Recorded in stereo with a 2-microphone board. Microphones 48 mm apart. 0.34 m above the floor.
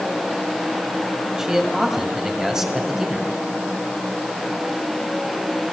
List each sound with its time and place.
1.4 s a man speaking: 10° right (ahead or behind), 2 m